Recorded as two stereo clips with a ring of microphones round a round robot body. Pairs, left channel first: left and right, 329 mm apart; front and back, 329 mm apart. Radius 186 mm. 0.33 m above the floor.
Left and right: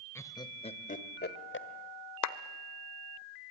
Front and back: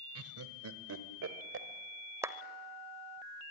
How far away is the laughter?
About 1.6 m.